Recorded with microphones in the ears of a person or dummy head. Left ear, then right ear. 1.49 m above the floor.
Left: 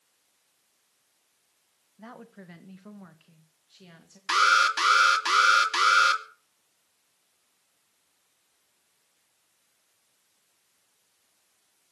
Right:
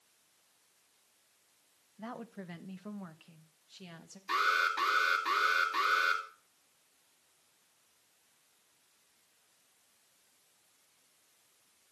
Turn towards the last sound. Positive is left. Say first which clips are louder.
# left 9 dB
turn(degrees=50)  # may be behind; listen again after turning